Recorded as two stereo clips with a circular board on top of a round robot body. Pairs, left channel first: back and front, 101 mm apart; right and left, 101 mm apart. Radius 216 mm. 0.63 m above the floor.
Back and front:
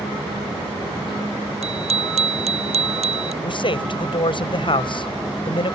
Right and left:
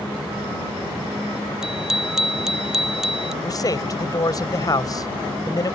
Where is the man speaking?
145° right.